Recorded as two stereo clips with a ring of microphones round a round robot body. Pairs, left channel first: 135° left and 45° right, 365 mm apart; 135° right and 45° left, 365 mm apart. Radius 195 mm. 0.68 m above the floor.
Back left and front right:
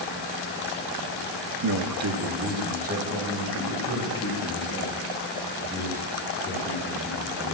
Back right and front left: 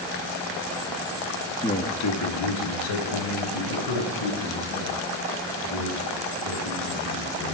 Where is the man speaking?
60° right, 0.9 m; by 7.5 s 130° right, 9 m.